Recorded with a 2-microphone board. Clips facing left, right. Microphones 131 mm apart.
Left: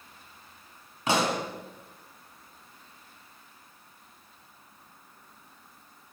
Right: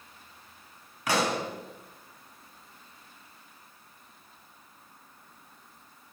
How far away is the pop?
About 2 m.